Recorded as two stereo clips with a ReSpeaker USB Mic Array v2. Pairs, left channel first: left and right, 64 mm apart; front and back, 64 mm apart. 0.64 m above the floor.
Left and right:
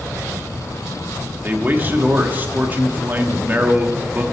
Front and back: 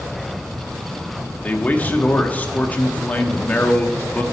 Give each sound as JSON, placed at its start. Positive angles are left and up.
{"t": 1.4, "sound": "a man speaking", "azimuth_deg": -50, "distance_m": 1.1}